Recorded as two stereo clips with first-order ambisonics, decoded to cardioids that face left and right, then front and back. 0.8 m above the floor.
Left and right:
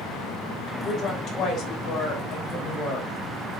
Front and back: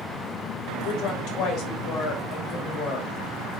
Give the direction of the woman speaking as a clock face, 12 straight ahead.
11 o'clock.